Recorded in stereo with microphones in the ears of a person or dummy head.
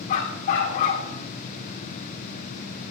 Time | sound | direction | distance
0.1 | a dog barking | 40° left (ahead or behind) | 1.7 m